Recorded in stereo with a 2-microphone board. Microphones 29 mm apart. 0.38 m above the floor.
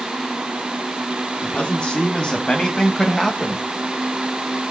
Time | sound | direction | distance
1.4 | a man speaking | 50° left (ahead or behind) | 3.5 m